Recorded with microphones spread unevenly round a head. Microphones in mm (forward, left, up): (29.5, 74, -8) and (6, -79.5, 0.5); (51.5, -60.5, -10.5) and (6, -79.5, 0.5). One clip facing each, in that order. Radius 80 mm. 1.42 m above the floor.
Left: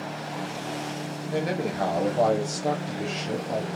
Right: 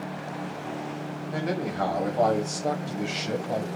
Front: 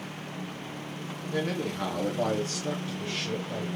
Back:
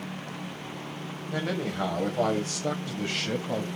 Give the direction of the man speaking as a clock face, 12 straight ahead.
7 o'clock.